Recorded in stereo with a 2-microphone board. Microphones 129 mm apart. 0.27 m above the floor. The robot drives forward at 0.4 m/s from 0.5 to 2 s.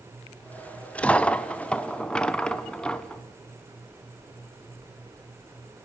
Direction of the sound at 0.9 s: 10° left (ahead or behind).